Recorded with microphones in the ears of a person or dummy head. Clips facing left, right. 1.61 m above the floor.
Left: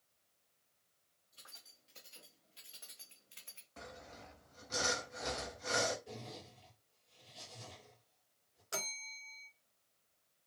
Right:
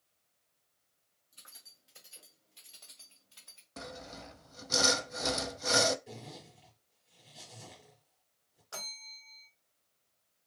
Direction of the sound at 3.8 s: 65° right (ahead or behind).